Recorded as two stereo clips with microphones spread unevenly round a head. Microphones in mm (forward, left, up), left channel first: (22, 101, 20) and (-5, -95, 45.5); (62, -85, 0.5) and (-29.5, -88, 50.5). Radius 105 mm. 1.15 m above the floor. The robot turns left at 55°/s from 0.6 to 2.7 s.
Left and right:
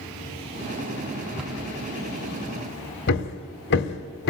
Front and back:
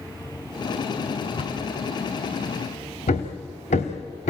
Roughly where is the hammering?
Ahead left.